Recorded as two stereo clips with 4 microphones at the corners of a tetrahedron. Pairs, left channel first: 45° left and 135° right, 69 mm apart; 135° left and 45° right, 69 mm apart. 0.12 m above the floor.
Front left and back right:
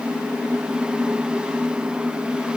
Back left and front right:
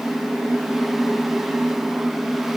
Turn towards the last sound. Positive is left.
No sound to turn to.